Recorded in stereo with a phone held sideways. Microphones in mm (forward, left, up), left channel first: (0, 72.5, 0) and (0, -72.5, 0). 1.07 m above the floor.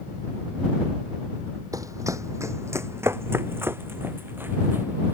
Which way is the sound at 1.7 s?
25° right (ahead or behind).